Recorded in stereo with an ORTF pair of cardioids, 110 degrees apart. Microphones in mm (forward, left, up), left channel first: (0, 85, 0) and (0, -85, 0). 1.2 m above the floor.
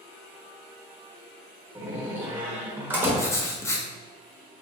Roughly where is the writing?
Ahead.